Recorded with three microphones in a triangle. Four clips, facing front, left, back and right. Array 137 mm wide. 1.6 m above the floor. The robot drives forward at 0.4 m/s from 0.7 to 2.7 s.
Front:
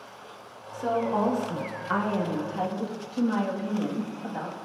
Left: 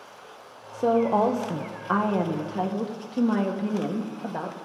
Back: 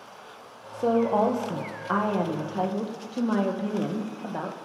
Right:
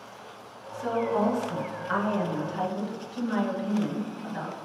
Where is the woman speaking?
110° left, 1.6 m; by 4.7 s 130° left, 2 m.